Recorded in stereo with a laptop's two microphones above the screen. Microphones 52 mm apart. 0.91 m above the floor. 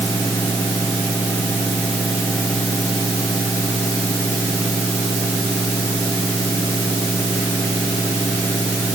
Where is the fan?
65° left (ahead or behind).